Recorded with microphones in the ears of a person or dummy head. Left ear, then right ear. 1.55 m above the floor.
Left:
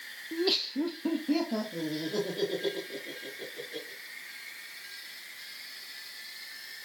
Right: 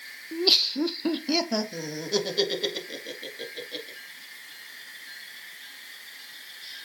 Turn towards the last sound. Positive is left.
turn(degrees=-60)  # may be behind; listen again after turning